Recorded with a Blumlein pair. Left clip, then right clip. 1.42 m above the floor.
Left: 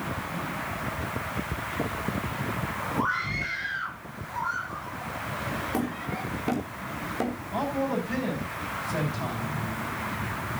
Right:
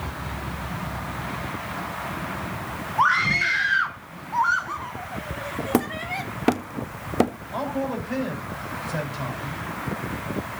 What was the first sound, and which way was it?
A scream, 30° right.